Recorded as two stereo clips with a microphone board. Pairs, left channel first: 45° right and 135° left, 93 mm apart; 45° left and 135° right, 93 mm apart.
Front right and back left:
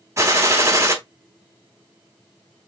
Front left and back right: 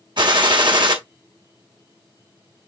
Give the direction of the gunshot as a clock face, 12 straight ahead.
6 o'clock.